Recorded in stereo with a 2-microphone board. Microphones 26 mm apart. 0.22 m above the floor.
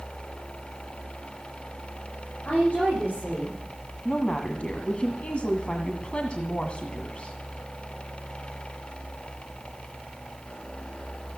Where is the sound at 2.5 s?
60° left (ahead or behind), 9 m.